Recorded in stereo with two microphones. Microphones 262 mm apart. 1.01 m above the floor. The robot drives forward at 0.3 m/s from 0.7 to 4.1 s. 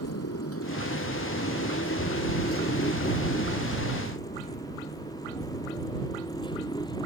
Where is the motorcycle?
70° left (ahead or behind); by 7.1 s 15° left (ahead or behind).